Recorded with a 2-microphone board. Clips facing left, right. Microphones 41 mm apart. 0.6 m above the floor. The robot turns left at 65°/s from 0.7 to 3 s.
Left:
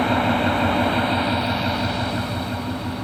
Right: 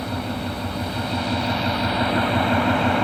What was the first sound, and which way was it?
An engine running, 60° left.